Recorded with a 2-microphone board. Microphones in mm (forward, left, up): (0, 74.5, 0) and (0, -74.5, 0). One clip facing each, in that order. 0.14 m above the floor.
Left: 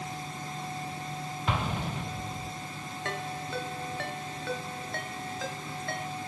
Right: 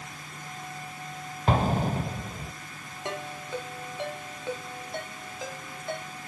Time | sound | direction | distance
1.5 | an explosion | 45° right (ahead or behind) | 0.6 m
3.0 | a ringtone | 15° right (ahead or behind) | 1.5 m